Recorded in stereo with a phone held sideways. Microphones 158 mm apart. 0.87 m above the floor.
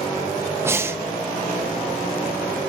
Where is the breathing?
15° right (ahead or behind), 0.7 m.